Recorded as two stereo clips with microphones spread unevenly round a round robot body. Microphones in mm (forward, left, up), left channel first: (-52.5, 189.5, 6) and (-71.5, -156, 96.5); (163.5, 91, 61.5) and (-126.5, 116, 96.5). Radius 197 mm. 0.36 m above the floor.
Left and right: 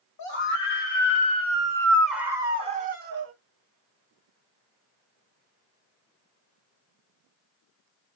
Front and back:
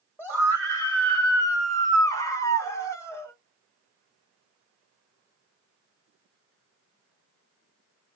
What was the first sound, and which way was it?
A scream, 70° left.